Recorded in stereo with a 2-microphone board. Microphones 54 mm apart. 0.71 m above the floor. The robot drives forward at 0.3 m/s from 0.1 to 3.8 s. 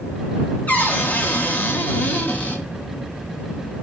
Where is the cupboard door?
30° left (ahead or behind), 0.8 m.